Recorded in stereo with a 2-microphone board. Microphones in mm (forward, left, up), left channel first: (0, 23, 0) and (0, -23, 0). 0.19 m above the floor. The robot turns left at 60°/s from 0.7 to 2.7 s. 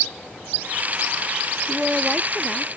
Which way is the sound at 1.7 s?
145° right.